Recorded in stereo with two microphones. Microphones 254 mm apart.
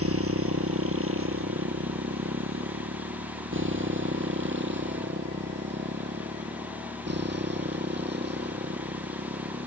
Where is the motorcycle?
65° right (ahead or behind); by 9.7 s 40° right (ahead or behind).